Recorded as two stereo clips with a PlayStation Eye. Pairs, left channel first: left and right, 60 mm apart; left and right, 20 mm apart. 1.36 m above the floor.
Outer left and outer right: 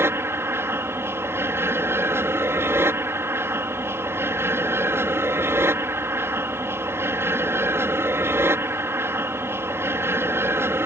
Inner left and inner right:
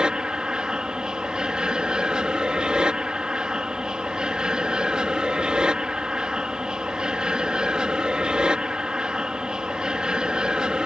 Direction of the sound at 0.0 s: 40° right (ahead or behind).